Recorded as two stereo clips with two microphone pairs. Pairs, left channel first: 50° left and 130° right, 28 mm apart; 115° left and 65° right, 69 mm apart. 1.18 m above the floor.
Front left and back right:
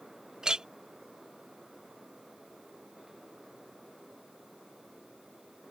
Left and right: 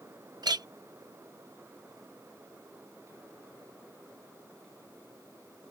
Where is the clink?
70° right.